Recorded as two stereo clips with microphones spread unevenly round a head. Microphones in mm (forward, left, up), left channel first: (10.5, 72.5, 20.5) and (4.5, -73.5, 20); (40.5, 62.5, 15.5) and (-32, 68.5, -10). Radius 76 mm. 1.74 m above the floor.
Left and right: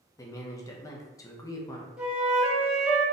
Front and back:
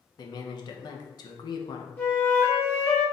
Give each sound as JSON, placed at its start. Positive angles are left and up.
{"t": 0.2, "sound": "a man speaking", "azimuth_deg": 15, "distance_m": 1.0}
{"t": 2.0, "sound": "a flute", "azimuth_deg": -15, "distance_m": 1.1}